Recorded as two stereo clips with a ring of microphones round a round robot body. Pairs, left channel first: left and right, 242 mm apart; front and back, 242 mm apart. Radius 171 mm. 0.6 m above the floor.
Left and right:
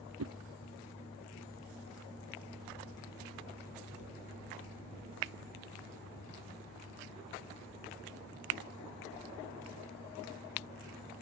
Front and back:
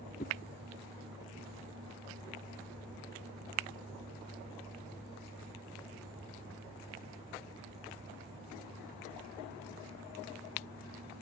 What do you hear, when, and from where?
0.2 s a whoosh: 70° right